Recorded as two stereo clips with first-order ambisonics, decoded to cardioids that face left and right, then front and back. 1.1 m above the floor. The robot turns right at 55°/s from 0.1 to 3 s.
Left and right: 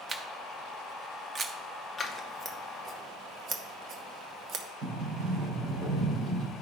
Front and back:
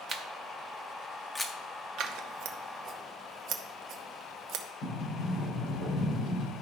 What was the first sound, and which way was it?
A camera shutter, 155° right.